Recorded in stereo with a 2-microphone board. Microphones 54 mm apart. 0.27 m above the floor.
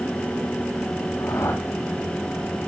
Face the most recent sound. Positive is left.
turn(degrees=75)  # may be behind; listen again after turning